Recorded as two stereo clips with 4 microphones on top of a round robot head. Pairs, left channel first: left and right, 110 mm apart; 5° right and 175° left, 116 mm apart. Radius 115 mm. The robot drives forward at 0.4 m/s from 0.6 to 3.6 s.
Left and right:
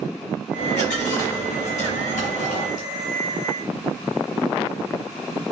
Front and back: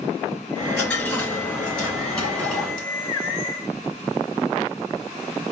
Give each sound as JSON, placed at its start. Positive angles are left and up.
{"t": 0.6, "sound": "a dropped coin", "azimuth_deg": 60, "distance_m": 3.0}